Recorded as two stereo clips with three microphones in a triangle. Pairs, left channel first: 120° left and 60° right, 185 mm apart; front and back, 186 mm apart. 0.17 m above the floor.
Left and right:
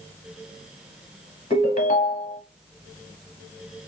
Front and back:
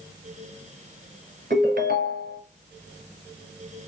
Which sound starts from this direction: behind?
A ringtone, at 1.5 s.